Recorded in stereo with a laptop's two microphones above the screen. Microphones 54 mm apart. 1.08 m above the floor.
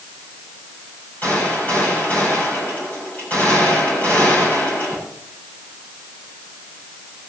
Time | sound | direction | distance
1.2 | a gunshot | 35° left (ahead or behind) | 7 m